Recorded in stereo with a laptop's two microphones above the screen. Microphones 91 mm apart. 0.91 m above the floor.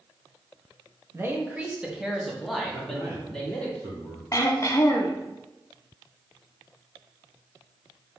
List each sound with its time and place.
1.1 s a man speaking: 30° right (ahead or behind), 0.8 m; by 3.7 s 10° left (ahead or behind), 1.9 m
2.7 s a man speaking: 25° right (ahead or behind), 1.3 m
4.3 s throat clearing: 35° left (ahead or behind), 0.6 m